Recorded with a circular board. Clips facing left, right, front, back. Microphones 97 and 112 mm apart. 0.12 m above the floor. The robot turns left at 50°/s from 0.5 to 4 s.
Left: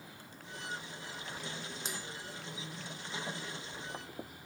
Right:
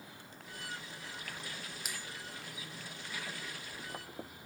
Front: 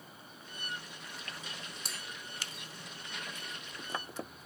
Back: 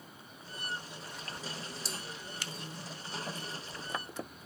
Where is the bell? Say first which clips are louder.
Left 3 dB, back 4 dB; 30° left, 0.9 m; by 2.0 s 20° left, 0.9 m.